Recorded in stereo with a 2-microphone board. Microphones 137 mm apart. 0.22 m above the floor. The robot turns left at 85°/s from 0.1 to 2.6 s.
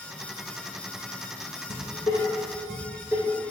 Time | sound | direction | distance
1.7 | dishes clattering | 60° left (ahead or behind) | 2 m